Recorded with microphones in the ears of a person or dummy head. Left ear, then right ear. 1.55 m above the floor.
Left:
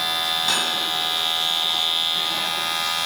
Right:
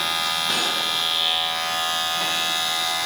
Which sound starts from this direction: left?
Cutlery clinking, at 0.5 s.